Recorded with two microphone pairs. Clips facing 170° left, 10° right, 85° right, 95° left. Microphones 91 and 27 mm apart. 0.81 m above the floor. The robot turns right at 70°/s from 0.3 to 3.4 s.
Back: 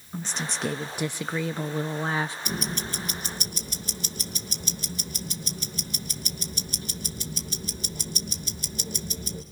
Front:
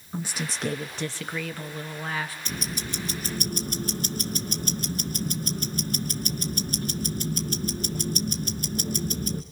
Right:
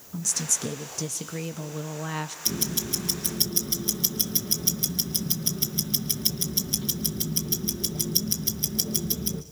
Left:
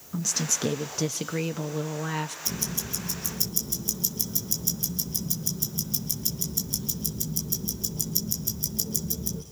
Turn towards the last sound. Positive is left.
turn(degrees=-45)